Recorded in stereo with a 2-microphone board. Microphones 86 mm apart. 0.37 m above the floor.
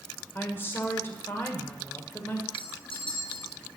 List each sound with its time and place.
0.3 s a woman speaking: 25° left (ahead or behind), 1.5 m
2.5 s a clink: 80° left, 4 m